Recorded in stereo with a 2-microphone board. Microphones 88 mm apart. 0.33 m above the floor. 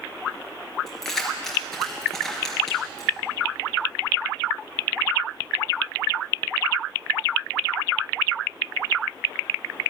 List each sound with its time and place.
0.9 s keys jangling: 5° left (ahead or behind), 4 m